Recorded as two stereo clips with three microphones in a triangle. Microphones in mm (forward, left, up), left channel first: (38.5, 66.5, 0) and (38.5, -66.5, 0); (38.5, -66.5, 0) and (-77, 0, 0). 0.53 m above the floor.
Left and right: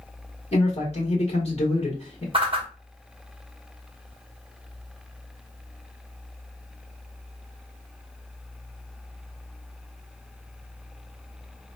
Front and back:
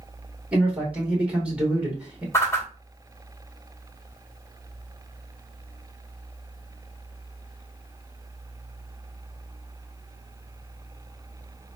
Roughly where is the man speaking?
Left.